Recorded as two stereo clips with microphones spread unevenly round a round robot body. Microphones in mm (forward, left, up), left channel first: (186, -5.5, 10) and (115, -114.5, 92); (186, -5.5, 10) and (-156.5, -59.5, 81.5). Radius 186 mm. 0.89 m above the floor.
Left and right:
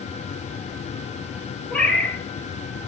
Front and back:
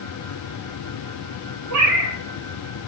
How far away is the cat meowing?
About 2.5 m.